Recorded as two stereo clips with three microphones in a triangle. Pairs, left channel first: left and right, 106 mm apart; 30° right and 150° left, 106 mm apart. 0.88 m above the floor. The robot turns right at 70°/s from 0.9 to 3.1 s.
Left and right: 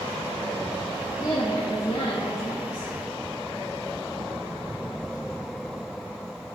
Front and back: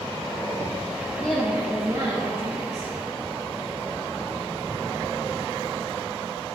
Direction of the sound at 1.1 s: 35° left.